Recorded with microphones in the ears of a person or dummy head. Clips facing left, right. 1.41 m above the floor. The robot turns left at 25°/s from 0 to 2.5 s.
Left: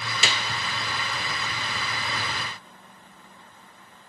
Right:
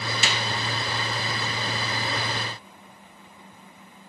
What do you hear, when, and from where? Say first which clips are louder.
0.2 s a clap: left 1 dB; 75° left (ahead or behind), 0.8 m; by 0.4 s 70° left (ahead or behind), 0.8 m